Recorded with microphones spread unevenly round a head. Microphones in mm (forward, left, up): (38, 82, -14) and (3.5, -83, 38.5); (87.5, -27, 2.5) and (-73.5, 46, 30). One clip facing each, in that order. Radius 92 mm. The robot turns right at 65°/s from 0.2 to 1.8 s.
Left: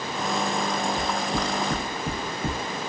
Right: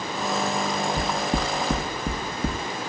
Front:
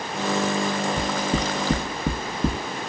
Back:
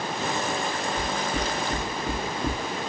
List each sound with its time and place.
1.0 s knocking: 90° right, 1.1 m; by 2.6 s 35° right, 1.1 m